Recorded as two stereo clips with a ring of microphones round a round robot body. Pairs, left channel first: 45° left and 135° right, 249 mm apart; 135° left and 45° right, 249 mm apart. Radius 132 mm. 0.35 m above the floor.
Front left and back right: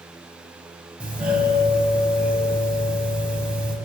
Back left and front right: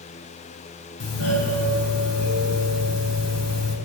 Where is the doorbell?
140° left, 4.5 m.